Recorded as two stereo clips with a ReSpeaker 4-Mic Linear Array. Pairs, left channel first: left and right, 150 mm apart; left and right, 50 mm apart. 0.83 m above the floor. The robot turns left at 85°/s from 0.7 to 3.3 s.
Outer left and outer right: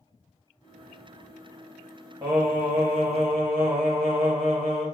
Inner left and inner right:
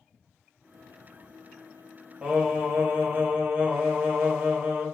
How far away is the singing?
About 0.9 m.